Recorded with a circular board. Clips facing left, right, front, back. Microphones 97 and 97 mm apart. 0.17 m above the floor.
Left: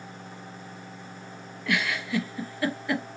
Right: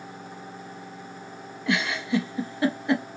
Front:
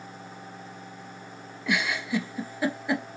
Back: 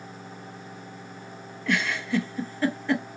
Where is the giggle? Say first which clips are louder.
Right 3 dB, back 1 dB; 65° right, 0.5 m.